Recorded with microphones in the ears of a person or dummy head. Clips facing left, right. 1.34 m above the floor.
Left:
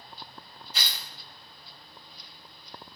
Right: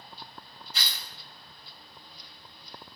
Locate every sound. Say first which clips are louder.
0.7 s tearing paper: left 2 dB; 55° left (ahead or behind), 2.5 m